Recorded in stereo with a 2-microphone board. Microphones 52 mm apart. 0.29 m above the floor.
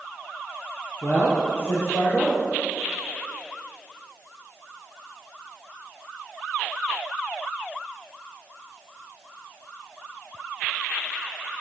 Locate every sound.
1.0 s a man speaking: 60° left (ahead or behind), 5.5 m